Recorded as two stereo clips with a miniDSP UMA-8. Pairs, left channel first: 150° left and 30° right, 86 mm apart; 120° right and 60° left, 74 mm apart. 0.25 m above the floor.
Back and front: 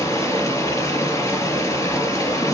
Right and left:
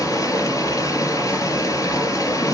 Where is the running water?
155° right, 3.5 m.